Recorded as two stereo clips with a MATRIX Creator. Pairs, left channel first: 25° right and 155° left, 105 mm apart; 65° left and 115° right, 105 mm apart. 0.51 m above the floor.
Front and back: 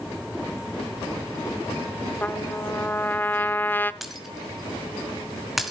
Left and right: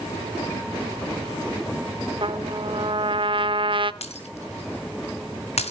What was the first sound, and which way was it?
A trumpet, 90° right.